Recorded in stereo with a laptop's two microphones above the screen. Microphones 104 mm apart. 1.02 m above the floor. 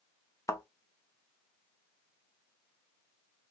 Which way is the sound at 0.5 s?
35° left (ahead or behind).